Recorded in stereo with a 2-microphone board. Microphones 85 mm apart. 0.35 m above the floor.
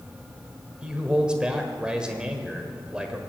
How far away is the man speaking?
About 1.1 m.